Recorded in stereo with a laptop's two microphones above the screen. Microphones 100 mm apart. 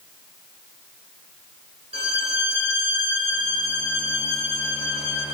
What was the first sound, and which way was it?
A violin, 70° right (ahead or behind).